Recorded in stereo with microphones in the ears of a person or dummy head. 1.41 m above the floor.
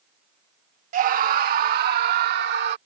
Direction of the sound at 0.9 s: 45° right (ahead or behind).